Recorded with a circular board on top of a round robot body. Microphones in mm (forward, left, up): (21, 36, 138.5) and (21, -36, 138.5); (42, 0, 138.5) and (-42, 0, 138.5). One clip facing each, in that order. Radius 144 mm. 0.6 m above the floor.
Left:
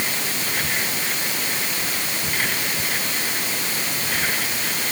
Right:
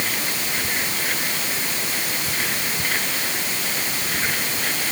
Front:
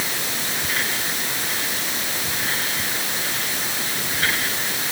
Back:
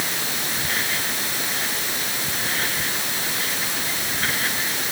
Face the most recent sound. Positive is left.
No sound to turn to.